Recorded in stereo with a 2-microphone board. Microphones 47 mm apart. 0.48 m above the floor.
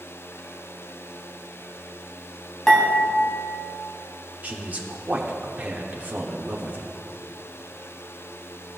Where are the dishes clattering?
10° left (ahead or behind), 2.5 m.